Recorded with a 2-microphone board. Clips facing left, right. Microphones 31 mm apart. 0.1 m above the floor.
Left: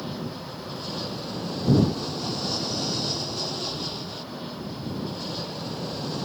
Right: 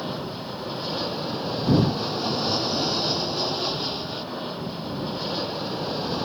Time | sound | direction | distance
0.0 | an aircraft | 25° right (ahead or behind) | ?